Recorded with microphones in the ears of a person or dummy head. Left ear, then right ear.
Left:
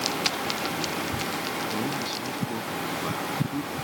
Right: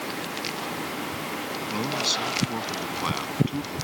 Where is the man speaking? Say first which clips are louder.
Right 3 dB; 50° right (ahead or behind); by 3.8 s 55° right (ahead or behind).